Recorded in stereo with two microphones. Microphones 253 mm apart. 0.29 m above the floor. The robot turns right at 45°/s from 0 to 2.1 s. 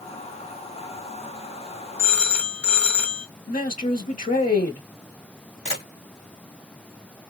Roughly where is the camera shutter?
Left.